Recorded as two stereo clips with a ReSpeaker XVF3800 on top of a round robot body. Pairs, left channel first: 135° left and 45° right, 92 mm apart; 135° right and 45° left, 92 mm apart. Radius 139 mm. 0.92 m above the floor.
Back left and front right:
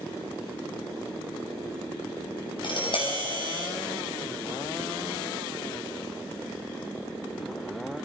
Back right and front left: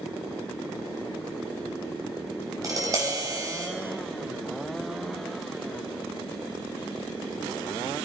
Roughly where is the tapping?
Left.